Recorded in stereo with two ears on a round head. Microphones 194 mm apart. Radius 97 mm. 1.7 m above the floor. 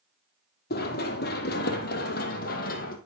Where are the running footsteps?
45° left (ahead or behind), 2.5 m; by 3.0 s 40° left (ahead or behind), 2.5 m.